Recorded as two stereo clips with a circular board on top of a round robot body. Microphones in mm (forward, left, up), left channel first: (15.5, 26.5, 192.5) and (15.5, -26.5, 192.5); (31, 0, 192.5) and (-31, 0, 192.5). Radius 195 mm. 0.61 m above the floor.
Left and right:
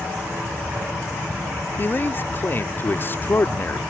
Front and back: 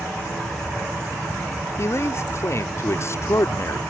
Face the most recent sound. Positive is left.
turn(degrees=40)